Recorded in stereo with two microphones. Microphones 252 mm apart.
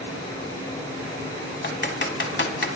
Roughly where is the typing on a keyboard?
Left.